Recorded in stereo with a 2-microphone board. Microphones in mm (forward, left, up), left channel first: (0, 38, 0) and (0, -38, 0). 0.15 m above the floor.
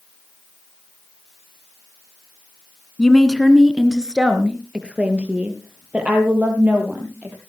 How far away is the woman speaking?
About 1.4 m.